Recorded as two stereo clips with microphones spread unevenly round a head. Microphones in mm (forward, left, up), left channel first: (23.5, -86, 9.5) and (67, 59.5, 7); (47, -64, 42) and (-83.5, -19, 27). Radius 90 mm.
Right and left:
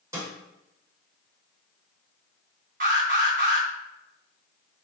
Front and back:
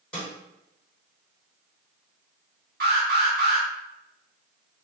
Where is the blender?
I don't hear a blender.